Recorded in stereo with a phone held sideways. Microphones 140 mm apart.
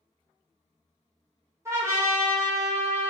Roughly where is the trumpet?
Right.